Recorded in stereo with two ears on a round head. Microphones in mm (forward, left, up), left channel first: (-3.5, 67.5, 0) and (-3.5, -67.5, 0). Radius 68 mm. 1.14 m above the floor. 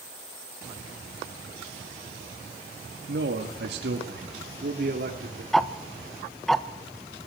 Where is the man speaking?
80° right, 2 m; by 5.4 s 60° right (ahead or behind), 3.5 m.